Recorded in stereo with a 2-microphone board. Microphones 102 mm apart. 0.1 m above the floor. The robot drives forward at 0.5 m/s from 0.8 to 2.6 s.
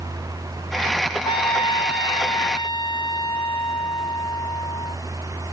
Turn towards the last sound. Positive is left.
turn(degrees=55)  # may be behind; listen again after turning